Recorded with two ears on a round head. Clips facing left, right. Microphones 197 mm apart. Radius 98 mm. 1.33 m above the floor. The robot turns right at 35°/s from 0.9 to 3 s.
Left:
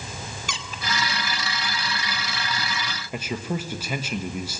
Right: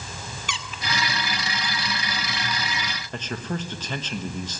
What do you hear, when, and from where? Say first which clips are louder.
0.5 s a squeak: even; 35° left (ahead or behind), 1.3 m
3.1 s a man speaking: left 2 dB; 10° left (ahead or behind), 1.2 m